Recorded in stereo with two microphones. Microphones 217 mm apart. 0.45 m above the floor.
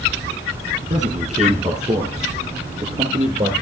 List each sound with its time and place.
0.9 s a man speaking: 30° right (ahead or behind), 5.5 m